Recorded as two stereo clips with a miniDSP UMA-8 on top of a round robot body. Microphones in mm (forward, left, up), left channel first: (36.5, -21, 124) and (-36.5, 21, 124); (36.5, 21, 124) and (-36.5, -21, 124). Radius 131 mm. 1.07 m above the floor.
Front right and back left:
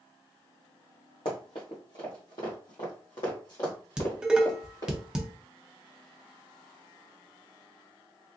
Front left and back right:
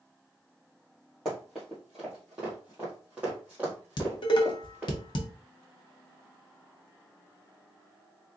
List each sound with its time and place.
1.2 s running footsteps: 60° right, 1.2 m; by 5.0 s 80° right, 2.5 m
4.0 s dishes clattering: 70° left, 0.5 m